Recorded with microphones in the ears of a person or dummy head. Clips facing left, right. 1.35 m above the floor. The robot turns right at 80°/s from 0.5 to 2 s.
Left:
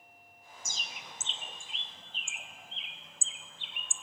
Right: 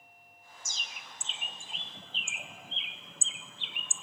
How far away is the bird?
About 0.6 m.